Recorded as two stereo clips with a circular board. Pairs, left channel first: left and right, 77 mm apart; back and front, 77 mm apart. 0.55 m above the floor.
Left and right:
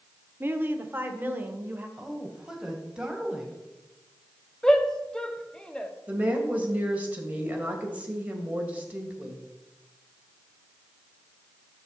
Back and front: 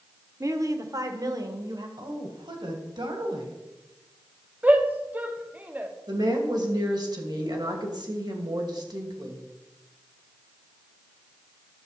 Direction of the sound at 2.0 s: 10° right.